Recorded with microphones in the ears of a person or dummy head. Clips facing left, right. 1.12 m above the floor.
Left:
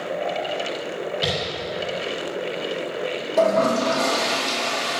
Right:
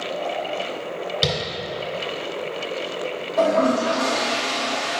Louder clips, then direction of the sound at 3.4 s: Even; 45° left (ahead or behind).